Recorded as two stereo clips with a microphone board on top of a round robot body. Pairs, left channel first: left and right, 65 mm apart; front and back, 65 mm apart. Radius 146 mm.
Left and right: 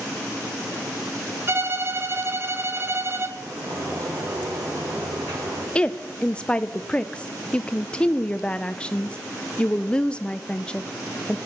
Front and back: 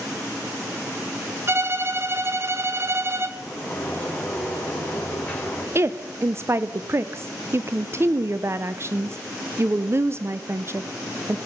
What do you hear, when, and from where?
1.5 s a violin: 135° right, 1.4 m
3.4 s a sliding door: 75° right, 7.5 m
5.8 s a woman speaking: 160° left, 0.7 m